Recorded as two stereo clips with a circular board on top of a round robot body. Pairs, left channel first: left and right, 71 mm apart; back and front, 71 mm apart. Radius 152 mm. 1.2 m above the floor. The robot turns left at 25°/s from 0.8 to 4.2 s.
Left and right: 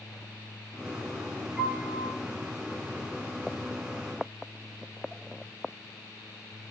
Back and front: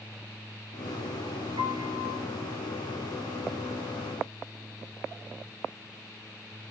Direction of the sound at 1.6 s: 5° right.